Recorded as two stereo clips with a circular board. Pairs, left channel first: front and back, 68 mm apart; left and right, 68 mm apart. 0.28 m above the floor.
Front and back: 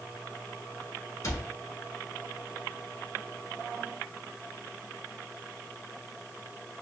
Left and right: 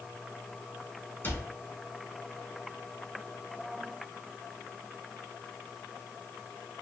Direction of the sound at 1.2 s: 30° left.